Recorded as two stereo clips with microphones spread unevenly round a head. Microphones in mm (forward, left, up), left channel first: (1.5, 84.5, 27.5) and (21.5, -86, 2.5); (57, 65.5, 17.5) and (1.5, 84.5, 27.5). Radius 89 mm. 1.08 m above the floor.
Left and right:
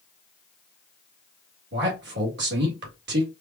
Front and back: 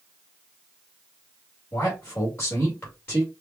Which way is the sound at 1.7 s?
85° right.